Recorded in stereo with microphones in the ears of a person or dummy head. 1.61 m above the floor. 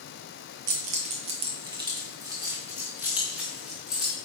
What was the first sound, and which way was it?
Keys jangling, 55° right (ahead or behind).